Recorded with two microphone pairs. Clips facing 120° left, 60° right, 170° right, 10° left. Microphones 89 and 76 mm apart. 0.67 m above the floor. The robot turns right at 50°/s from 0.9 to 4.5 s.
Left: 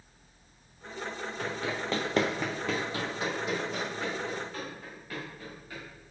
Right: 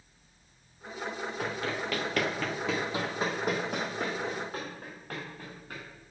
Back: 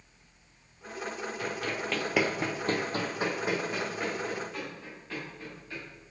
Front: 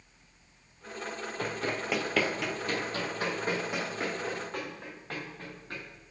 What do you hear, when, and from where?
1.4 s running footsteps: 25° left, 1.0 m; by 5.8 s 30° right, 3.5 m